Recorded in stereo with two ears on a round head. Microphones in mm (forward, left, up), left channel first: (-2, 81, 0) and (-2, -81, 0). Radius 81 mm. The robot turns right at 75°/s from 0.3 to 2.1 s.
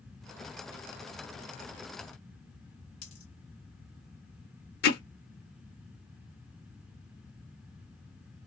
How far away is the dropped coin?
About 1.8 m.